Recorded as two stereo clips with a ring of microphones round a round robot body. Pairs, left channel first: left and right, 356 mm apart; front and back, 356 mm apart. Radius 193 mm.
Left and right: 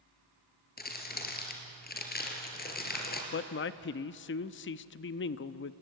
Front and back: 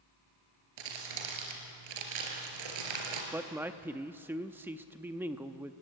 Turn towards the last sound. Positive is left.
turn(degrees=100)